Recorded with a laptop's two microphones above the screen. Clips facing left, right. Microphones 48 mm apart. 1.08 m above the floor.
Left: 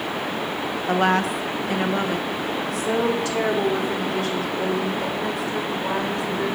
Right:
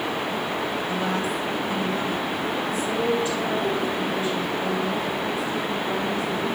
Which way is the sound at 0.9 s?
55° left (ahead or behind).